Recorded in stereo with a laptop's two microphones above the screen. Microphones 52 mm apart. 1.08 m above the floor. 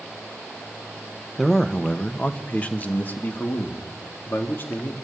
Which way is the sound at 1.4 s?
Centre (ahead or behind).